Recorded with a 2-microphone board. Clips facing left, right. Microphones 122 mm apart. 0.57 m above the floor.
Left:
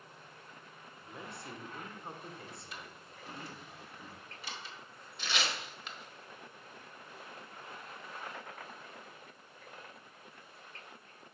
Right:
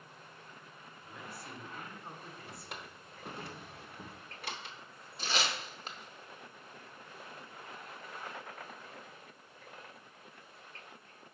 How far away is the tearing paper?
About 1.2 m.